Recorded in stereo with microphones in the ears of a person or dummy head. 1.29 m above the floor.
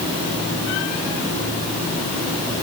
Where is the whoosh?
I don't hear a whoosh.